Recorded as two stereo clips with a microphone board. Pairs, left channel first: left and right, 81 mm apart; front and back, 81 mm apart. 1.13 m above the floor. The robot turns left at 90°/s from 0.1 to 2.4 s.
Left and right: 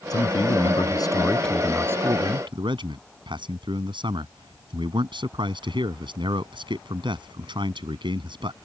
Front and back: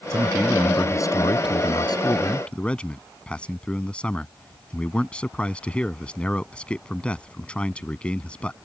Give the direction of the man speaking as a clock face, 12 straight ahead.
8 o'clock.